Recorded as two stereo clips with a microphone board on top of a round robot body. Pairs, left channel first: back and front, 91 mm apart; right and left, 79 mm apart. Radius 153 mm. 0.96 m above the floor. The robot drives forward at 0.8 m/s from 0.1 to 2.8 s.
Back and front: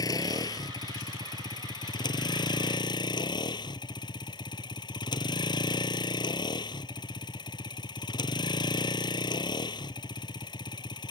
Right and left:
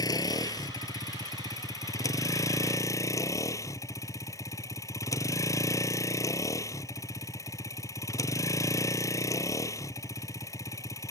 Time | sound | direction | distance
0.0 | a vehicle | 130° right | ?